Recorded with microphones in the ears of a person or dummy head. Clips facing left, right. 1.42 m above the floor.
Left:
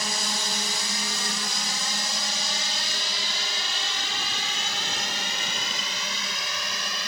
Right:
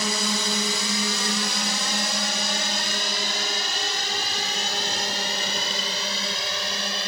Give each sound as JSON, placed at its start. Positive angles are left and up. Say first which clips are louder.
{"t": 0.0, "sound": "a drone", "louder": "right 6 dB", "side_deg": -60}